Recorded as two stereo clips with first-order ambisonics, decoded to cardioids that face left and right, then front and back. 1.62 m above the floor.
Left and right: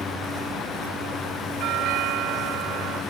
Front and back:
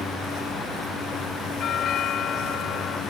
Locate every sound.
1.6 s a doorbell: 55° right